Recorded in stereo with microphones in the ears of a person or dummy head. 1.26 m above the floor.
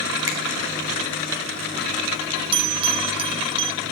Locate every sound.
0.3 s a finger snap: 15° right (ahead or behind), 1.3 m
2.5 s a bell: 30° right (ahead or behind), 0.6 m